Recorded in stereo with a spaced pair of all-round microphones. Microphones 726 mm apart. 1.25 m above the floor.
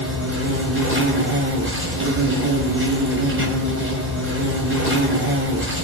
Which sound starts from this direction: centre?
An insect, at 0.0 s.